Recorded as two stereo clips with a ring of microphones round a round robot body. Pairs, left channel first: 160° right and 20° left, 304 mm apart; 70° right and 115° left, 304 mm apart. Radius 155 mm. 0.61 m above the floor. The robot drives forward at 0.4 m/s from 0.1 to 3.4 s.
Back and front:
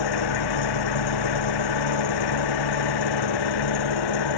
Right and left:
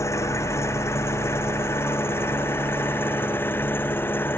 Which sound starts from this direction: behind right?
An engine running, at 0.0 s.